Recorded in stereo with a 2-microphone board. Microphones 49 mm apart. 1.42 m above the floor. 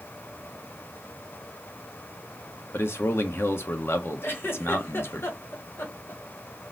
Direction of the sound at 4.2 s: 55° left (ahead or behind).